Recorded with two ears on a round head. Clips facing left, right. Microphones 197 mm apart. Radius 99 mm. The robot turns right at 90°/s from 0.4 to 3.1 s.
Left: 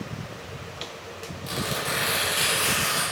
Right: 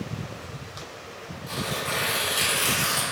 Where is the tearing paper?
105° left, 0.6 m; by 3.0 s 110° right, 0.6 m.